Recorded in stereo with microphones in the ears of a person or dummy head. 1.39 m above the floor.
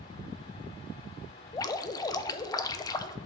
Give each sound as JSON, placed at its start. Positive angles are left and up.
{"t": 1.5, "sound": "dripping", "side_deg": 20, "distance_m": 0.5}